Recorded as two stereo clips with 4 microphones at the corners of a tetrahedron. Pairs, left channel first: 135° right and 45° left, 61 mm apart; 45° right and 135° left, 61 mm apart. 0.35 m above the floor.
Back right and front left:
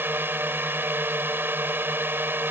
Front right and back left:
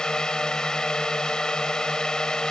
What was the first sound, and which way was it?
A drone, 25° left.